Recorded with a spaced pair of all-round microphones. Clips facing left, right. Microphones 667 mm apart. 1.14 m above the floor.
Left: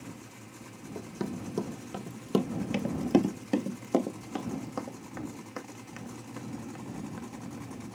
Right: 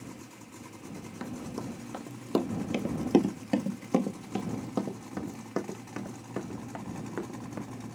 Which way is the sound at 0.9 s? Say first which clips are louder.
Left 4 dB; 70° left (ahead or behind).